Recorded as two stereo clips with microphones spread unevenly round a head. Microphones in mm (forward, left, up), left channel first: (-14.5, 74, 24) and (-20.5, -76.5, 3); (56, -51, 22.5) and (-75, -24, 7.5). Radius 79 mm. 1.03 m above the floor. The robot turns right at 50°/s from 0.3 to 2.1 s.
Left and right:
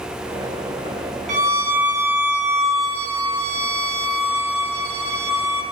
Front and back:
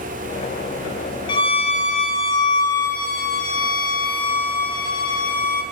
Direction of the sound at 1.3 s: 65° right.